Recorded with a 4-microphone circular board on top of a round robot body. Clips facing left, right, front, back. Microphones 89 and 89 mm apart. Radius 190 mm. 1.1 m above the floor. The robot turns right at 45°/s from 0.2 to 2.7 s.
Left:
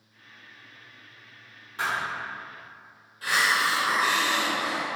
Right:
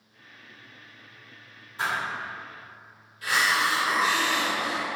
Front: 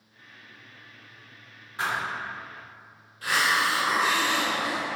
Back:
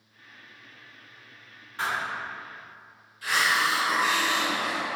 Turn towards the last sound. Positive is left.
turn(degrees=40)